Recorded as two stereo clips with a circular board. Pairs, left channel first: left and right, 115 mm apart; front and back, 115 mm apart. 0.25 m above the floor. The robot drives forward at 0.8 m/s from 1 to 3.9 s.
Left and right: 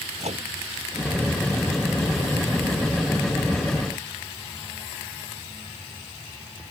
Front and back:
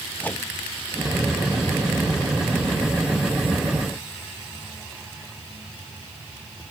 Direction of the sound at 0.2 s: 75° right.